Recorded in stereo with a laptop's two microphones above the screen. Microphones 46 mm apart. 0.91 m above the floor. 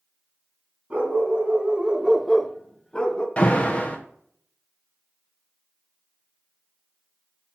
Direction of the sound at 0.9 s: 25° right (ahead or behind).